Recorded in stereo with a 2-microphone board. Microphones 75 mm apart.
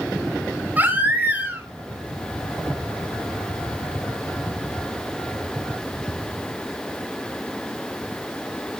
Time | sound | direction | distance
0.8 | a baby crying | 25° right (ahead or behind) | 3.5 m